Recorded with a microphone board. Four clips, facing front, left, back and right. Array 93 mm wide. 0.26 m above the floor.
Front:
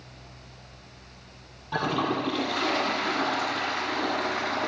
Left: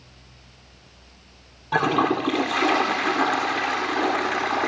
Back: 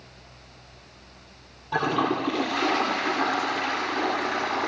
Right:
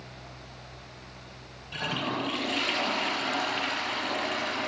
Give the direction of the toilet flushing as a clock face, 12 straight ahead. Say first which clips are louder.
Left 11 dB, back 3 dB; 9 o'clock.